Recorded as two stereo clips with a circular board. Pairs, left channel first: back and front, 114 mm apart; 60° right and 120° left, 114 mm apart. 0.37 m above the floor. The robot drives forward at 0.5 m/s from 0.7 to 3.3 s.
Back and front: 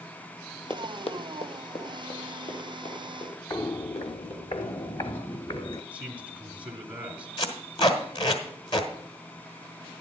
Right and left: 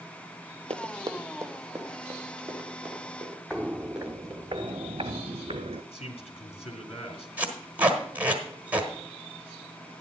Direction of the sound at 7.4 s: 170° right.